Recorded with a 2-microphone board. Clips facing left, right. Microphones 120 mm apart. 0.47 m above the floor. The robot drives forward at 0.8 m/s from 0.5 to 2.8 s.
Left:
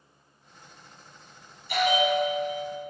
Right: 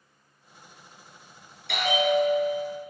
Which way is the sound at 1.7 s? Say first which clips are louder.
Even; 75° right (ahead or behind).